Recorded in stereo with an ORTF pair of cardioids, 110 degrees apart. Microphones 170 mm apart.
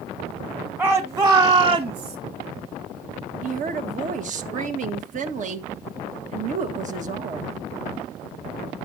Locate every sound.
0.8 s a shout: 15° right, 1.5 m; by 2.2 s 30° right, 2 m
3.4 s a woman speaking: 45° right, 1.6 m